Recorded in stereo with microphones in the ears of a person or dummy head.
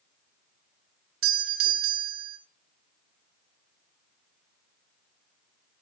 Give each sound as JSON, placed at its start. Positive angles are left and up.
{"t": 1.2, "sound": "a doorbell", "side_deg": -50, "distance_m": 1.6}